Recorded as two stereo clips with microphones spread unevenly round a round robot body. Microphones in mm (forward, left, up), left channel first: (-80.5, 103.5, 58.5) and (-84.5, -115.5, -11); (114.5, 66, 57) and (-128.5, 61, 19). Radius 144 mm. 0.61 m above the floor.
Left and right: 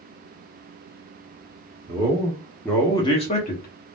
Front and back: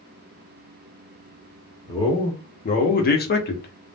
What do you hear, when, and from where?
1.9 s a man speaking: 75° right, 1.0 m; by 4.0 s 45° left, 1.0 m